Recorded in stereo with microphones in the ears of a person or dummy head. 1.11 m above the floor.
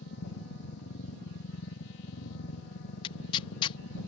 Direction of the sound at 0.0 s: 65° left (ahead or behind).